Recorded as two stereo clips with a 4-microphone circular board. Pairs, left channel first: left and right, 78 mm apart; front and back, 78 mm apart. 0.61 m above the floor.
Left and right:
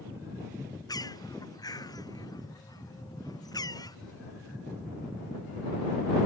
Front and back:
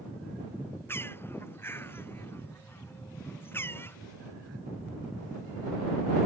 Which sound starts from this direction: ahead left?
A bird, at 0.9 s.